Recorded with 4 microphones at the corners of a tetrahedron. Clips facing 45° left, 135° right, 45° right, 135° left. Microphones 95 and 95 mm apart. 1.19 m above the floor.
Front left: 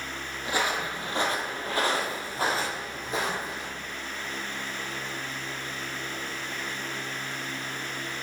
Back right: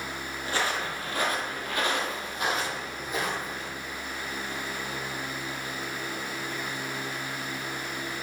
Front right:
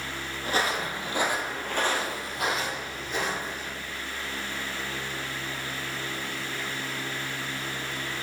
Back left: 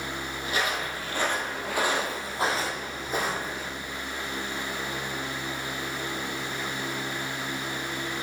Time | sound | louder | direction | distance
0.4 | footsteps | front left 1 dB, front right 2 dB | 20° right | 1.6 m